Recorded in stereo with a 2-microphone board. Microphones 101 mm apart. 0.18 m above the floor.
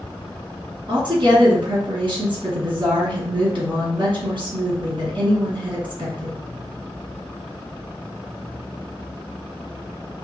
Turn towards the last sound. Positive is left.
turn(degrees=-55)  # may be behind; listen again after turning